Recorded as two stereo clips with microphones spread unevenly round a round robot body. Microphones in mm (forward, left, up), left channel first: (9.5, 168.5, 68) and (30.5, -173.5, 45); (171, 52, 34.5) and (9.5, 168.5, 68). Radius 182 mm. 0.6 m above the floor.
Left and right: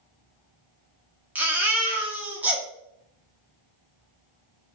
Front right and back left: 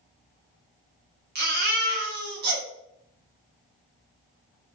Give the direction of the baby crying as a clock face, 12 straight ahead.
6 o'clock.